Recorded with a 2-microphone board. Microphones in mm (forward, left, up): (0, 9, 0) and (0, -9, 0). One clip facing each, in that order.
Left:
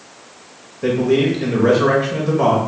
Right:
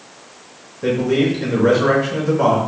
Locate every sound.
0.8 s a man speaking: 10° left (ahead or behind), 1.4 m